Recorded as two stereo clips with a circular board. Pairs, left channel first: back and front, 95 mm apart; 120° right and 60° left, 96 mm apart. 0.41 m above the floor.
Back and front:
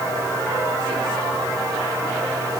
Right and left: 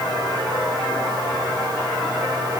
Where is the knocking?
I don't hear knocking.